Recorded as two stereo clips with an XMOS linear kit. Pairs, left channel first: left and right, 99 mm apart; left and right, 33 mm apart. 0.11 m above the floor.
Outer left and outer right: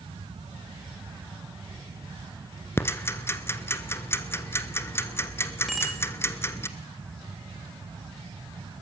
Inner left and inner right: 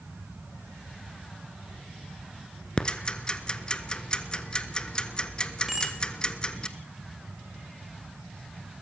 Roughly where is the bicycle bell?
Centre.